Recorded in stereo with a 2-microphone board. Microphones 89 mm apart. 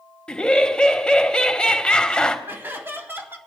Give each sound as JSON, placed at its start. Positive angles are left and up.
{"t": 0.3, "sound": "laughter", "side_deg": 10, "distance_m": 1.1}
{"t": 2.5, "sound": "laughter", "side_deg": -25, "distance_m": 1.8}